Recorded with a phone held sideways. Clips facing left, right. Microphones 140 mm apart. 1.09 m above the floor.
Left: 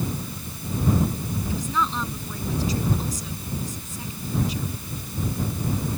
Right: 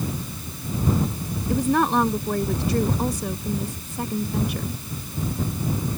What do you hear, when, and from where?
1.5 s a woman speaking: 65° right (ahead or behind)